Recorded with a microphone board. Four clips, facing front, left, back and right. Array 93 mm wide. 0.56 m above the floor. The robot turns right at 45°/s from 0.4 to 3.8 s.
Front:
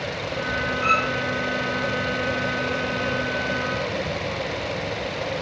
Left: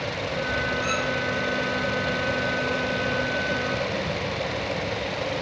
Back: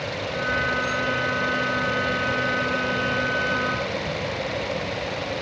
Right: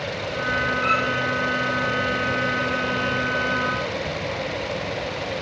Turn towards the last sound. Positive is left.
turn(degrees=95)